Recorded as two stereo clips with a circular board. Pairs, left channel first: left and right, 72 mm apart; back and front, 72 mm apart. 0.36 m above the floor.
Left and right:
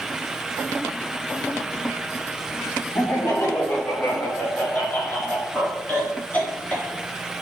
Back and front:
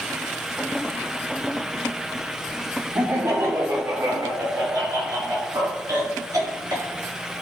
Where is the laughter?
45° left, 2.5 m; by 6.9 s 25° left, 5 m.